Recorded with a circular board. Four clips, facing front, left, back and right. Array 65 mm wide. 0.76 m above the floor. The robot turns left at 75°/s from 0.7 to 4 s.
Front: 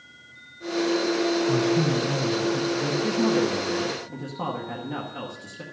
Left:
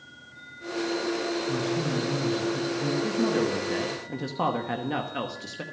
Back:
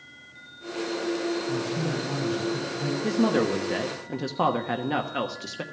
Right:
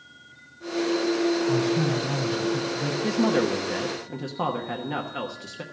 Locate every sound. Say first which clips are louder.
1.5 s a man speaking: right 4 dB, front 6 dB; 65° right, 4 m; by 2.9 s 175° right, 4 m
3.0 s a woman speaking: right 5 dB, back 1 dB; 115° right, 1.0 m; by 5.6 s 175° left, 1.0 m